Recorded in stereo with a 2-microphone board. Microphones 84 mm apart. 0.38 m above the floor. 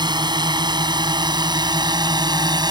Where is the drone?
60° right (ahead or behind); by 2.7 s 55° right (ahead or behind).